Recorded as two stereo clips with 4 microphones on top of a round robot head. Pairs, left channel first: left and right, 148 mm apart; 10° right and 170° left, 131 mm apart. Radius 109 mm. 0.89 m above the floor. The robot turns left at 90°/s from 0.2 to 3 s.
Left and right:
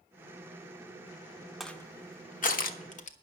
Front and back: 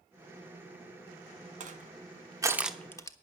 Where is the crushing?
Straight behind, 1.2 m; by 3.1 s 55° left, 1.2 m.